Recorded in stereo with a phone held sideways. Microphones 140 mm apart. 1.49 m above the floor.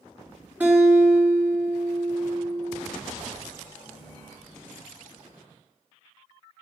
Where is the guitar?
15° right (ahead or behind), 3.5 m.